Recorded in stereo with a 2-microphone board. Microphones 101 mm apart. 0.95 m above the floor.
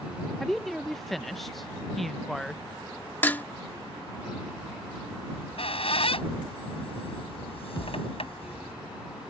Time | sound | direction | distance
0.4 | a woman speaking | centre (ahead or behind) | ?
3.2 | dishes clattering | 20° left (ahead or behind) | ?
5.3 | a squeak | 75° left (ahead or behind) | ?
7.8 | a thud | 45° left (ahead or behind) | ?